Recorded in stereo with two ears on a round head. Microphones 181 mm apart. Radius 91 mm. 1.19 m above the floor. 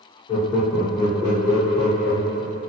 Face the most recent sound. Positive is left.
turn(degrees=0)  # may be behind; listen again after turning